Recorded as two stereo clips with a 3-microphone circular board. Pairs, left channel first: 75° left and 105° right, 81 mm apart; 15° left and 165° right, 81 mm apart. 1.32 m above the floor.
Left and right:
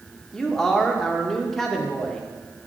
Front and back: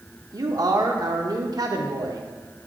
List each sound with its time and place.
0.3 s a man speaking: 160° left, 0.9 m